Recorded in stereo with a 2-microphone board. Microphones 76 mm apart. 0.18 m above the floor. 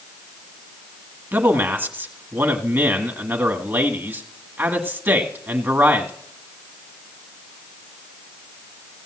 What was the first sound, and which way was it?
A man speaking, 30° right (ahead or behind).